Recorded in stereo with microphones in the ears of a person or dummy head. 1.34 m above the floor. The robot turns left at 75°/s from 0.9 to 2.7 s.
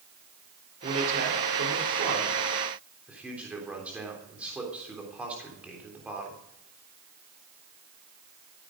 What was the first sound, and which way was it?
A man speaking, 35° right (ahead or behind).